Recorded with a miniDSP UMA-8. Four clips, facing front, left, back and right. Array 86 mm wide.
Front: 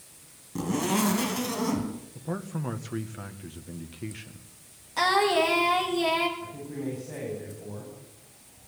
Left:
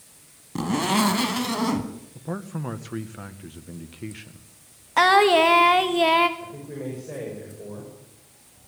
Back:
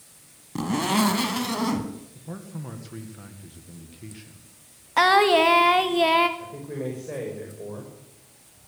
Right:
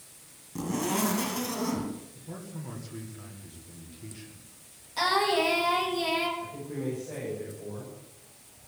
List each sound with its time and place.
0.6 s a zipper: 120° left, 1.9 m
2.1 s a man speaking: 60° left, 1.6 m
5.0 s singing: 125° left, 1.9 m
6.4 s a man speaking: 160° left, 6.5 m